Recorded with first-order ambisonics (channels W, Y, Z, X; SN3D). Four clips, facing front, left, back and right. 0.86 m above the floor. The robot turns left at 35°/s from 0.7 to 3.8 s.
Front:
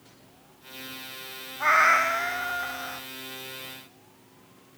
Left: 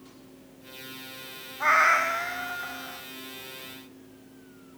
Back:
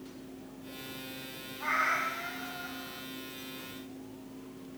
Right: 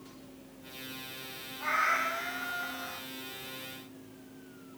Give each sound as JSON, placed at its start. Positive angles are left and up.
{"t": 1.6, "sound": "a cat meowing", "azimuth_deg": 45, "distance_m": 0.5}